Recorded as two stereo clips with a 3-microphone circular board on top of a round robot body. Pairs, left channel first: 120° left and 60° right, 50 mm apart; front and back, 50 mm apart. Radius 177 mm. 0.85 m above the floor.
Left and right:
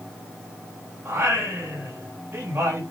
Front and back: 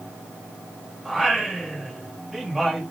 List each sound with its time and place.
1.1 s singing: 100° right, 7 m